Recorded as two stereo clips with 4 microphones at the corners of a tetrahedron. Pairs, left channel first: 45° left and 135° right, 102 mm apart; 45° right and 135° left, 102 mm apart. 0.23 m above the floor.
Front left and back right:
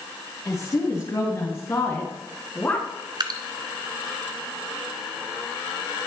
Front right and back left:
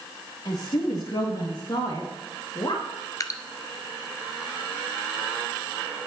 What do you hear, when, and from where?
0.5 s a woman speaking: 10° right, 4 m; by 2.9 s 25° right, 3 m
3.2 s dripping: 95° right, 0.9 m